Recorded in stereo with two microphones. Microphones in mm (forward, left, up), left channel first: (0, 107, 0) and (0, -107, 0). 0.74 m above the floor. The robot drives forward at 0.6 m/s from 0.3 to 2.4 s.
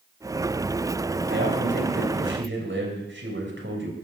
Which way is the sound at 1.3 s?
55° right (ahead or behind).